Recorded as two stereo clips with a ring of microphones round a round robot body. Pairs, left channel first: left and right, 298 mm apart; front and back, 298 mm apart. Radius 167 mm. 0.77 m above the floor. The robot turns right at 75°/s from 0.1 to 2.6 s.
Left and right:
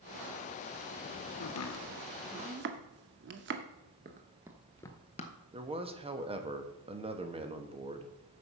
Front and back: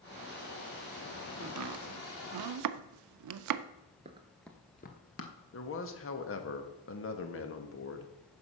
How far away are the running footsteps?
About 0.8 m.